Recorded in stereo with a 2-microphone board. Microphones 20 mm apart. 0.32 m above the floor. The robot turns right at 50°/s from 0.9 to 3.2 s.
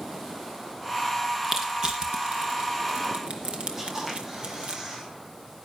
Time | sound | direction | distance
1.4 | crushing | 15° right (ahead or behind) | 2.5 m
3.8 | a camera shutter | 25° right (ahead or behind) | 6 m